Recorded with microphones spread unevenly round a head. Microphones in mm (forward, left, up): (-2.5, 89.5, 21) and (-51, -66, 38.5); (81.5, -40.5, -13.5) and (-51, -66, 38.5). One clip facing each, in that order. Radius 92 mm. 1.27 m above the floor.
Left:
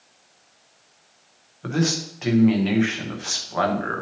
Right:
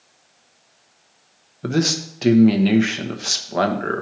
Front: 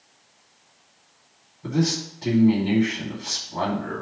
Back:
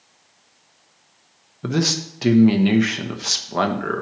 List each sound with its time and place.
1.6 s a man speaking: 155° right, 1.1 m